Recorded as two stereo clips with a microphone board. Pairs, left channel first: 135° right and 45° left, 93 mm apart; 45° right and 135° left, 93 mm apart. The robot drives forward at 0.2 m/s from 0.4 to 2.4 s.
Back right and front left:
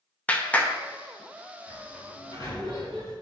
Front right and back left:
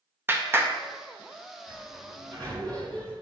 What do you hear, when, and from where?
0.3 s a clap: 170° left, 0.7 m
1.7 s a sliding door: 175° left, 2 m